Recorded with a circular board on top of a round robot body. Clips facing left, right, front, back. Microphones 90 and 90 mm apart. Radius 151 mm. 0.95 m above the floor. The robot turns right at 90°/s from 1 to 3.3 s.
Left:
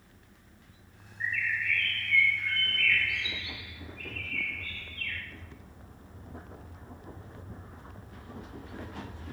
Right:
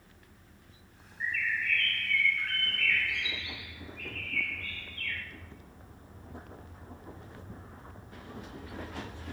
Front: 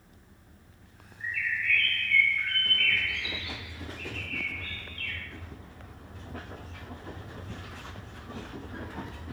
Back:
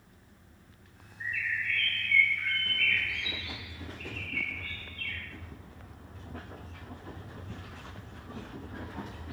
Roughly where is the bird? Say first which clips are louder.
Left 1 dB, front 2 dB; behind.